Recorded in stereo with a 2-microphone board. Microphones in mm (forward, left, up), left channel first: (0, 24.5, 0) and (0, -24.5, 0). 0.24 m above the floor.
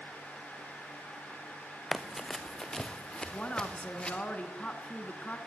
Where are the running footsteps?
5° left (ahead or behind), 1.2 m; by 4.2 s 25° left (ahead or behind), 2.5 m.